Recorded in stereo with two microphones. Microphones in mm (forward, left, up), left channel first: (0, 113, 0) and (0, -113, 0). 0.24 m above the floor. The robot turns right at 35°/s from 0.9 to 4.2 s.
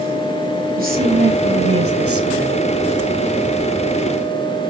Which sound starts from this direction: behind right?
A woman speaking, at 0.8 s.